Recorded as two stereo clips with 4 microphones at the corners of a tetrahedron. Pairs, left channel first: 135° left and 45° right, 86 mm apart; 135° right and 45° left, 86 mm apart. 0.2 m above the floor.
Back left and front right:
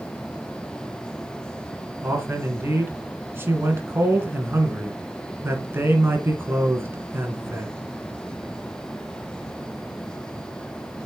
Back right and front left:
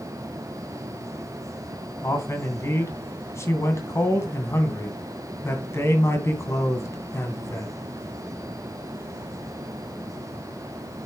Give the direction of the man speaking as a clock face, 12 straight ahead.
3 o'clock.